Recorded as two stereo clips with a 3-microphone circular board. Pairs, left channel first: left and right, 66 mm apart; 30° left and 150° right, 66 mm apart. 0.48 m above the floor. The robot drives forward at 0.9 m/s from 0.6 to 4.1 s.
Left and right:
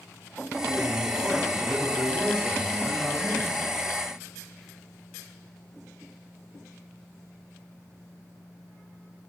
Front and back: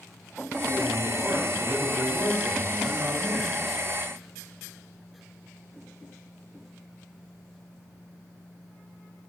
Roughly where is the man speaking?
Behind left.